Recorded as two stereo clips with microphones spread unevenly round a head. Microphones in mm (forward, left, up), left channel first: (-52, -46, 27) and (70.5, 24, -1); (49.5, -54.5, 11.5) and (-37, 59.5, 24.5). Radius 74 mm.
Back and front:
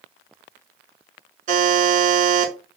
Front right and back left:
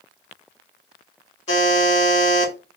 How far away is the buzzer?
About 1.8 m.